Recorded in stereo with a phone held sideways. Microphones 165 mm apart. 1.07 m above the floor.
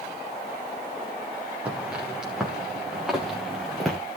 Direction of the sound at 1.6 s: 5° right (ahead or behind).